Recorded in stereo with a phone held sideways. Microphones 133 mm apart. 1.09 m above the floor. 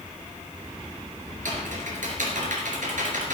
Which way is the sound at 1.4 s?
75° right (ahead or behind).